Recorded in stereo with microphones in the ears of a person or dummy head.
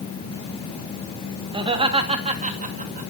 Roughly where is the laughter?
Right.